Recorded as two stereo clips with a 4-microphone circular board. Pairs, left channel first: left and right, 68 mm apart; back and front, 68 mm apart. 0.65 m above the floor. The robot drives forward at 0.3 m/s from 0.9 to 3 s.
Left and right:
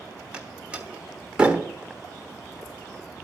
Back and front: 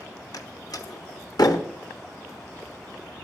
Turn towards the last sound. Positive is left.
turn(degrees=-170)